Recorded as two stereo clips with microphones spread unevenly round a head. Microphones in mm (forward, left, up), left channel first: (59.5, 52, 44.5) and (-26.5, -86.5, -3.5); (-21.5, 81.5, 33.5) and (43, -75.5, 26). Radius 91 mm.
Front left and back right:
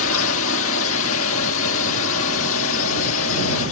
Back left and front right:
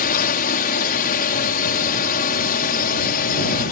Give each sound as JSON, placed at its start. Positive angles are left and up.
{"t": 0.0, "sound": "a drone", "azimuth_deg": 75}